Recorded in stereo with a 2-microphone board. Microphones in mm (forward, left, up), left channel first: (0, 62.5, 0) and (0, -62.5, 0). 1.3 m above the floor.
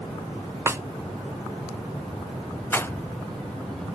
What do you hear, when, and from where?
0.7 s a snare drum: 20° right (ahead or behind), 0.6 m
2.7 s a rattle: 20° left (ahead or behind), 0.5 m